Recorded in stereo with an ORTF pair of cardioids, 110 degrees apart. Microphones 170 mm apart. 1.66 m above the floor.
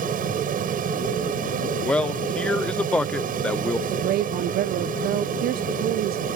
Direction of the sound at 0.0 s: 55° right.